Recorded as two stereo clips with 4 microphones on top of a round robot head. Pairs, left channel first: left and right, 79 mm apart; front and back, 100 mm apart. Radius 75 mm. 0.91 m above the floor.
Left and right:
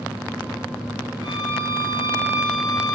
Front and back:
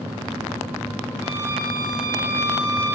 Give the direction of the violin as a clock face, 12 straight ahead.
8 o'clock.